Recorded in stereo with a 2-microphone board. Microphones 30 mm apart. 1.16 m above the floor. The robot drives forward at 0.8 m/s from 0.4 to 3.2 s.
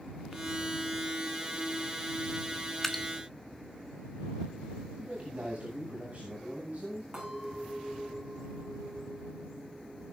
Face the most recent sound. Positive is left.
turn(degrees=-20)  # may be behind; listen again after turning